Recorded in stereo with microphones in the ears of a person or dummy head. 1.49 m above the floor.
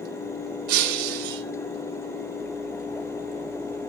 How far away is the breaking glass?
About 3 m.